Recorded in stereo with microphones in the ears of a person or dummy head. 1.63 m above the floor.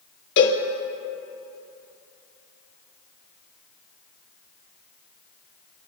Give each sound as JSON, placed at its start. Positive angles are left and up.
{"t": 0.4, "sound": "a cowbell", "side_deg": 65, "distance_m": 1.8}